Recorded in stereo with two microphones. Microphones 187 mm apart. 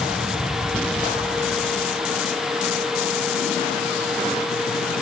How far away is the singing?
No singing in this recording.